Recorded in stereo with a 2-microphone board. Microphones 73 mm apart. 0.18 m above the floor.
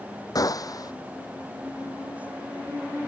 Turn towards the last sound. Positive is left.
turn(degrees=55)  # may be behind; listen again after turning